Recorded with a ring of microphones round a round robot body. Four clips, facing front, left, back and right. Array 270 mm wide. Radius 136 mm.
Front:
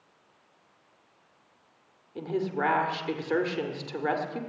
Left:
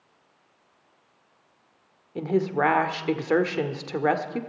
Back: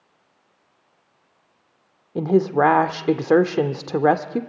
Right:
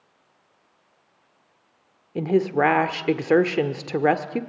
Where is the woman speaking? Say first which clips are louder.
Right 4 dB, back 12 dB; 155° right, 1.5 m.